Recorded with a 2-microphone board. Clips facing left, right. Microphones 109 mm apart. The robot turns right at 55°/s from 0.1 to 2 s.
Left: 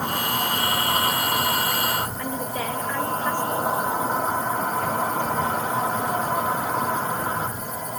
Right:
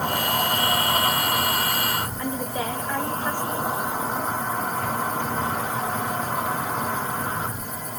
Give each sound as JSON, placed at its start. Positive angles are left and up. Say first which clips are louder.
{"t": 0.0, "sound": "an insect", "louder": "right 1 dB", "azimuth_deg": -70, "distance_m": 4.5}
{"t": 2.2, "sound": "a woman speaking", "louder": "even", "side_deg": -15, "distance_m": 0.7}